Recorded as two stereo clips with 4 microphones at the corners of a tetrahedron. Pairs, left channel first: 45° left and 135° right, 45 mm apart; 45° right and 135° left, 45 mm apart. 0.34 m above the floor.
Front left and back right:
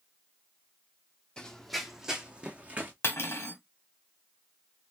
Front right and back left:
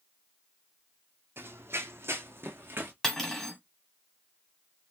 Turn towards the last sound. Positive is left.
turn(degrees=35)